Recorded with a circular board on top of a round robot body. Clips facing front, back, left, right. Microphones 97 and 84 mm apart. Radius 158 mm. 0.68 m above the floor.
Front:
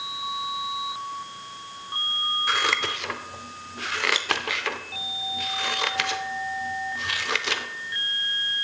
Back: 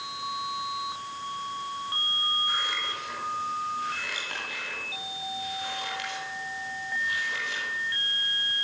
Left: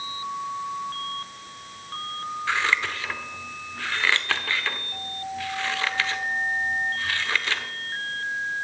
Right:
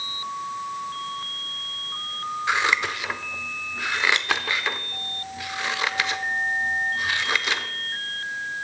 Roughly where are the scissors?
Ahead.